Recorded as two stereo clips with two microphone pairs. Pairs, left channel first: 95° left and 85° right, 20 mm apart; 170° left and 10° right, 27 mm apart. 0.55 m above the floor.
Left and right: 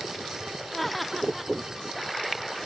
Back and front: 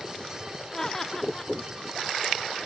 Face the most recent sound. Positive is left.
turn(degrees=175)